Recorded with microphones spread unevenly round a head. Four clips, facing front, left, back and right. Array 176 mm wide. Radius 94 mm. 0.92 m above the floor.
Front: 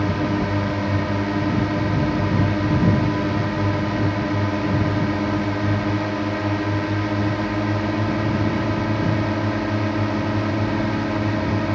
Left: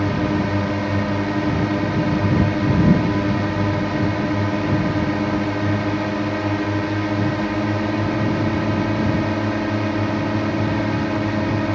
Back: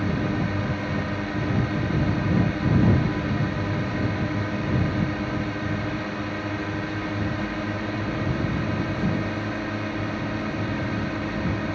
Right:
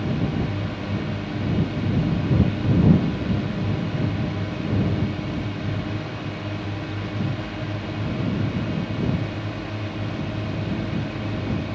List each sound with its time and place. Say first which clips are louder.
0.0 s a drone: left 5 dB, front 4 dB; 70° left